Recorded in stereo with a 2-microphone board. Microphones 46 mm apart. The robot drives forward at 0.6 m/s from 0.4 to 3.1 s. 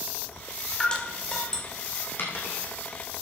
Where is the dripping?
20° left (ahead or behind), 1.8 m; by 1.6 s 15° left (ahead or behind), 2 m.